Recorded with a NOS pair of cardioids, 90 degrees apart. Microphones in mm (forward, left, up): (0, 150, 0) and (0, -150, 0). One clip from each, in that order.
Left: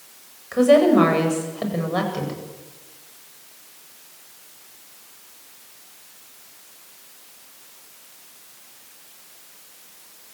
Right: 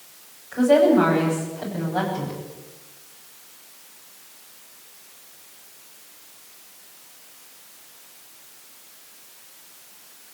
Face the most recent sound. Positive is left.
turn(degrees=65)